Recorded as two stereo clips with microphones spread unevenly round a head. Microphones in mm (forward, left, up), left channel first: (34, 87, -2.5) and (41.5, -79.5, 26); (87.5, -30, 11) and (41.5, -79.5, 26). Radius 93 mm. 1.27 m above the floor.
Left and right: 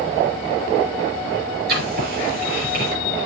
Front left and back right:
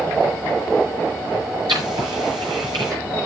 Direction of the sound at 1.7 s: 130° right.